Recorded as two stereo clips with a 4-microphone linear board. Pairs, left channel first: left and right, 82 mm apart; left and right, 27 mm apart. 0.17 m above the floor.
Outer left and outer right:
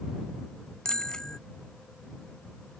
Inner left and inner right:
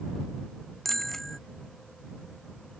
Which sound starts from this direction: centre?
A bicycle bell, at 0.8 s.